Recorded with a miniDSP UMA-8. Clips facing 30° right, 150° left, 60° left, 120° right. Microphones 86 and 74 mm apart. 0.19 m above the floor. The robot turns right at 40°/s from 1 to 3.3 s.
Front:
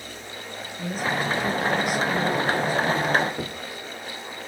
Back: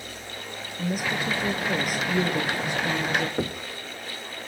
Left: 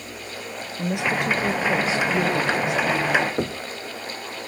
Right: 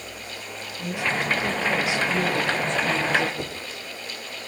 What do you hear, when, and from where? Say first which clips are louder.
0.8 s a woman speaking: front 1 dB, left 3 dB; 70° left, 5 m; by 3.3 s 165° left, 5 m
3.4 s knocking: back 4 dB, left 7 dB; 100° left, 2 m